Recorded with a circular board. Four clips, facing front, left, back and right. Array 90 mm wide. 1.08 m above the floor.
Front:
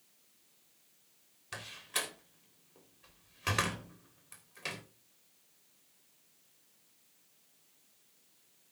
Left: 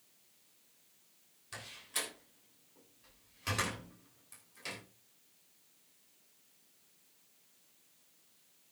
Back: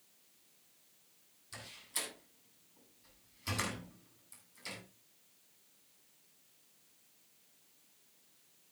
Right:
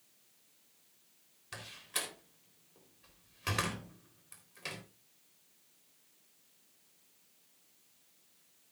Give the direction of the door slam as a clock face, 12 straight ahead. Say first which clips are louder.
Right 1 dB, front 7 dB; 1 o'clock.